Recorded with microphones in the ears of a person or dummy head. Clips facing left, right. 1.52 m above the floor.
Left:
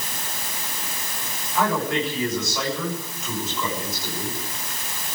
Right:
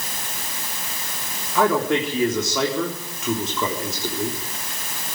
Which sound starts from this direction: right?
A man speaking, at 1.6 s.